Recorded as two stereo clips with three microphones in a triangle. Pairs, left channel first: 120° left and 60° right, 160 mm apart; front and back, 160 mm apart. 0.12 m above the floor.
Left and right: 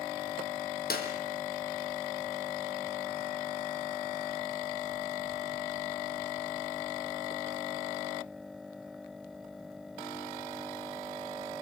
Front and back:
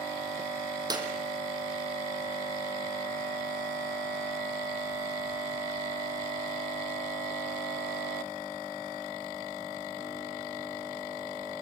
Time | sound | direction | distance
0.9 | a clap | 115° left | 3.5 m